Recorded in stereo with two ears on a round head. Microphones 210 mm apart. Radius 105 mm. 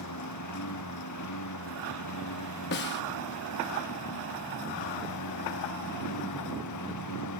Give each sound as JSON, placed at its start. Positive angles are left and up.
{"t": 0.0, "sound": "a lawn mower", "side_deg": 85}
{"t": 2.7, "sound": "a snare drum", "side_deg": 45}